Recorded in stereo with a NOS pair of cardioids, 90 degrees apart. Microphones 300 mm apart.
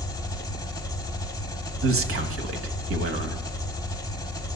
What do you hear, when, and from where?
0.0 s an engine running: 15° left, 1.2 m
1.8 s a man speaking: 50° right, 1.4 m